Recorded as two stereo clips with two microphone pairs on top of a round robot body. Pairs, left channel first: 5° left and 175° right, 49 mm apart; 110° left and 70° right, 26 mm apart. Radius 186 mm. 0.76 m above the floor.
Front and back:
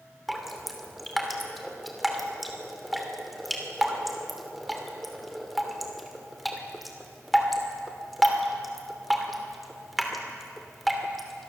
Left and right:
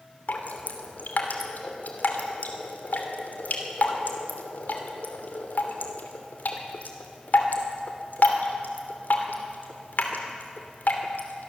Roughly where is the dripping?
Left.